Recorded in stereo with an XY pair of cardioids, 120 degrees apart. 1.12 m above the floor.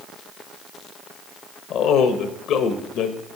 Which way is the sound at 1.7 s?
70° left.